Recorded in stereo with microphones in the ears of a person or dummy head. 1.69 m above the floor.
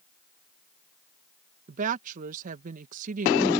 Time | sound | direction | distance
1.7 | a woman speaking | 45° right (ahead or behind) | ?